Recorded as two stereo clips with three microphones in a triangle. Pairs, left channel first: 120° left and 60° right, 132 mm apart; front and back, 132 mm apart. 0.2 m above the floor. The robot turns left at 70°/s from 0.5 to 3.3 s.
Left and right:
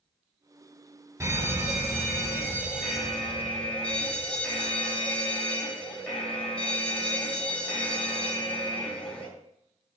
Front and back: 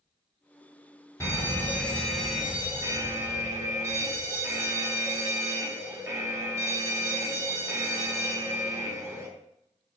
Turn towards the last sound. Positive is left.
turn(degrees=-170)